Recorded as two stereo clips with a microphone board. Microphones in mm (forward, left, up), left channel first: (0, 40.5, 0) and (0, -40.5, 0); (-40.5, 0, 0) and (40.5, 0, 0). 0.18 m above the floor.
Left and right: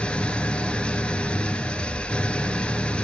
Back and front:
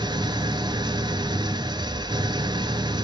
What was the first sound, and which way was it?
An engine running, 15° left.